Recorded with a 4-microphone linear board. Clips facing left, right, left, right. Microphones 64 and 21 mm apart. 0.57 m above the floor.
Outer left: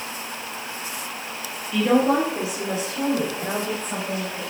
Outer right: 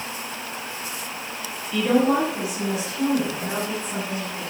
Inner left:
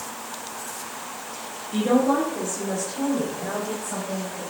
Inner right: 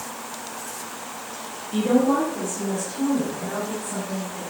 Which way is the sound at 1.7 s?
5° left (ahead or behind).